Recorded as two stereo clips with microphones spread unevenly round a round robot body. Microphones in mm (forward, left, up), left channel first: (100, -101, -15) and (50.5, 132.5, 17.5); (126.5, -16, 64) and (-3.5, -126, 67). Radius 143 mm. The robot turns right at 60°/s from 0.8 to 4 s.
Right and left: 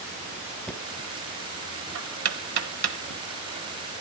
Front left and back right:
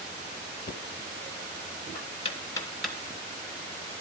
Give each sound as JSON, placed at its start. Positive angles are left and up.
{"t": 0.7, "sound": "knocking", "azimuth_deg": 5, "distance_m": 1.1}